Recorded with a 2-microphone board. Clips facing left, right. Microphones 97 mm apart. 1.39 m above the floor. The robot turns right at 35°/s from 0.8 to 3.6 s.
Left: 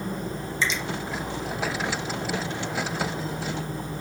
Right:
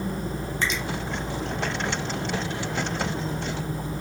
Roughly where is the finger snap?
Right.